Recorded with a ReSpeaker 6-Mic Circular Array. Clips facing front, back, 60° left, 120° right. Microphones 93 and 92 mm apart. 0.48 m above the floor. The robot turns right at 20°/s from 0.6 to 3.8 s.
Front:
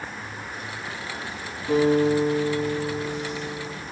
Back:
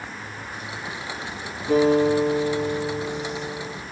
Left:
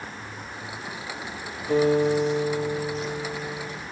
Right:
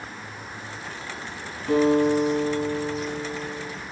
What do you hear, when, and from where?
1.7 s a guitar: 110° right, 4.5 m; by 3.8 s 70° right, 4.5 m